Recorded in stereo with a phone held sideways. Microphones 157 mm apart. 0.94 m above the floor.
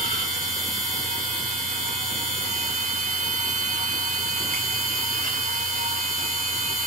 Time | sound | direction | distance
0.0 | a machine running | 55° right (ahead or behind) | 1.2 m